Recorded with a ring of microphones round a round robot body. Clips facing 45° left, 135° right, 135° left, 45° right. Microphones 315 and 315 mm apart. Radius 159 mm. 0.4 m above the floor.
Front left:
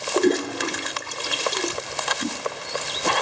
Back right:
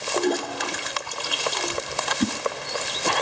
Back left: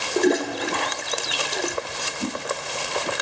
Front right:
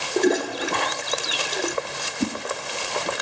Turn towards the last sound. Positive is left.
turn(degrees=-110)